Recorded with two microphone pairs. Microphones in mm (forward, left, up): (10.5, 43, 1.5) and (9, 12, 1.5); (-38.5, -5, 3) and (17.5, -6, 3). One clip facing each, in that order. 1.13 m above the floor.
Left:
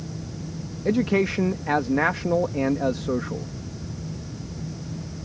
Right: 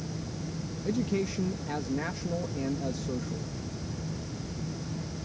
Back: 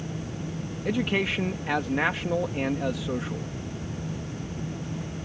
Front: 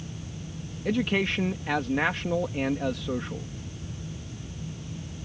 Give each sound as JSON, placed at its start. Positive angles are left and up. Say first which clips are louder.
{"t": 0.8, "sound": "a man speaking", "louder": "left 9 dB, even", "azimuth_deg": 95}